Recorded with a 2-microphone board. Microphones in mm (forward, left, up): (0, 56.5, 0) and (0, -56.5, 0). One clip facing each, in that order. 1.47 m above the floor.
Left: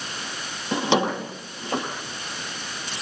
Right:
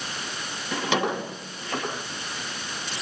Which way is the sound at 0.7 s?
25° left (ahead or behind).